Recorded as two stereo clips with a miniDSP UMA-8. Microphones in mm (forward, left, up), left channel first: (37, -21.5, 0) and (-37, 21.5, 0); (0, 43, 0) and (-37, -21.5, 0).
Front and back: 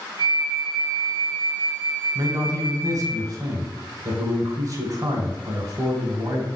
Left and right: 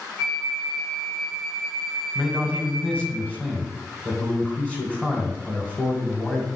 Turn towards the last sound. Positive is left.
turn(degrees=125)